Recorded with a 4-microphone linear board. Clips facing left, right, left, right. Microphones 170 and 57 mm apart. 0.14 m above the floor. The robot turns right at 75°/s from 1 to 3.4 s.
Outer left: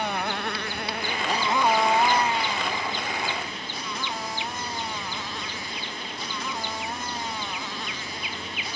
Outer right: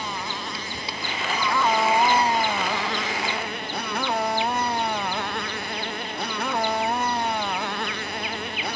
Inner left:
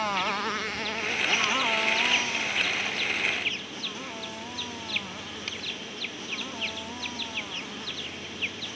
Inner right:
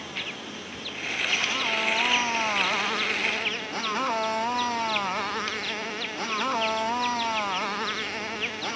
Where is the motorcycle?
120° left; by 8.8 s 60° right.